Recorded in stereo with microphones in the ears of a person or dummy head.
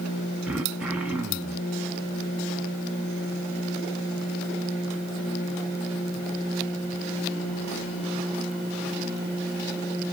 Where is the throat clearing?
10° right (ahead or behind), 1.0 m.